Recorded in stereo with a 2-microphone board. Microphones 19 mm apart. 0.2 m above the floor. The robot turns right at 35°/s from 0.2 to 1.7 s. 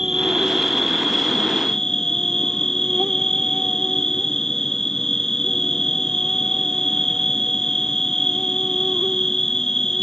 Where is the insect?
30° right; by 10.0 s 25° left.